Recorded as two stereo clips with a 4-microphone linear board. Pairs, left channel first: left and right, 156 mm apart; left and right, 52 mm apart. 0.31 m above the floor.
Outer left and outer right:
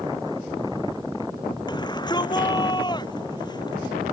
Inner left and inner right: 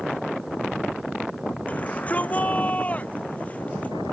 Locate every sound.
1.7 s a shout: 30° left (ahead or behind)